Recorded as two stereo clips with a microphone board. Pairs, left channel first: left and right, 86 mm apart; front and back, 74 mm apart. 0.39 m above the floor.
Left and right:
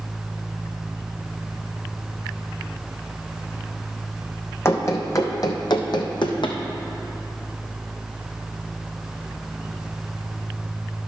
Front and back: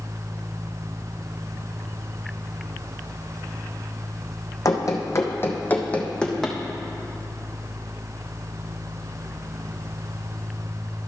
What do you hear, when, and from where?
4.7 s running footsteps: 35° left, 1.2 m; by 6.6 s 85° left, 1.2 m